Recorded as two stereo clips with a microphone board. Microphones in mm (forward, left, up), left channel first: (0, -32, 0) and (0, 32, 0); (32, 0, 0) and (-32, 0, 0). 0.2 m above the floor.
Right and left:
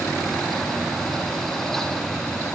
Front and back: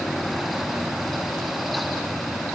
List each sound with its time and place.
Only background noise.